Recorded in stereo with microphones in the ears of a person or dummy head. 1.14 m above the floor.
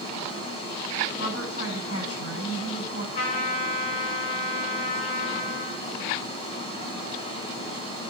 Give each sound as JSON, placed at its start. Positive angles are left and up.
{"t": 0.0, "sound": "running water", "side_deg": 35, "distance_m": 3.5}
{"t": 1.2, "sound": "a woman speaking", "side_deg": 80, "distance_m": 9.0}
{"t": 3.1, "sound": "a trumpet", "side_deg": 50, "distance_m": 4.0}